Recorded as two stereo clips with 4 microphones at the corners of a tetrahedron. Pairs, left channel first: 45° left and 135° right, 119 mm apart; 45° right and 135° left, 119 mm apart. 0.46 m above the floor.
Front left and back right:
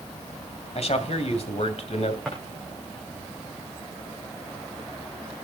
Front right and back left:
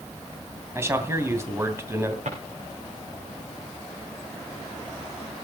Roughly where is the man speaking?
Left.